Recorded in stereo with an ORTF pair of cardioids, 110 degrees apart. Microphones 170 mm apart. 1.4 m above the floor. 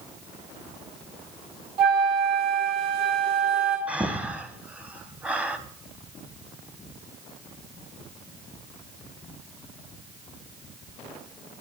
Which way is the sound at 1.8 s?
65° right.